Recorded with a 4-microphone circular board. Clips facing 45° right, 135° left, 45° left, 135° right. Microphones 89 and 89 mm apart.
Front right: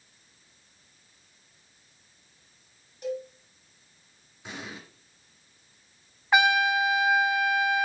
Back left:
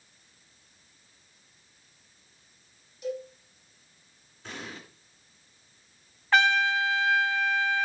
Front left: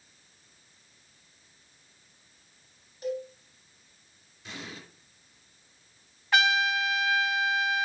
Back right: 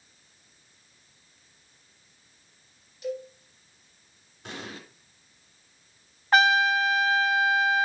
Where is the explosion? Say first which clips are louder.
Front right 1 dB, back right 3 dB; 120° right, 2.5 m.